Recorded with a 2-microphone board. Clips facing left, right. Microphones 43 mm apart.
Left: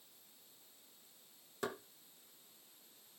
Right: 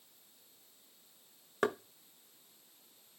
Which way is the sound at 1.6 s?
60° right (ahead or behind).